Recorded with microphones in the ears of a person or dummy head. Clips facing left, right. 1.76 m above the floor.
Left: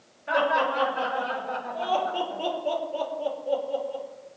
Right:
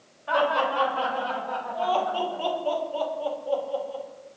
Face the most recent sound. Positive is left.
turn(degrees=15)  # may be behind; listen again after turning